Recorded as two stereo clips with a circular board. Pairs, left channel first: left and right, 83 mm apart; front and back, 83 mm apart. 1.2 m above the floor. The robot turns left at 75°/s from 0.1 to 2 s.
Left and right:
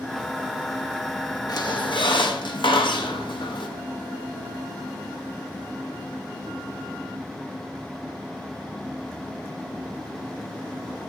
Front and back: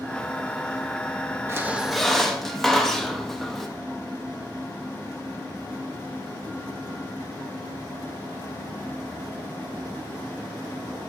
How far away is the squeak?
About 0.9 m.